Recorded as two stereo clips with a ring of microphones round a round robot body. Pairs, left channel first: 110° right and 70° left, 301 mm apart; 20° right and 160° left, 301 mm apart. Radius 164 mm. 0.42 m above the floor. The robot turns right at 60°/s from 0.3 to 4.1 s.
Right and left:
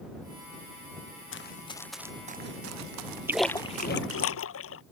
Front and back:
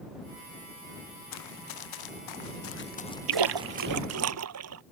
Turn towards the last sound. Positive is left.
turn(degrees=-160)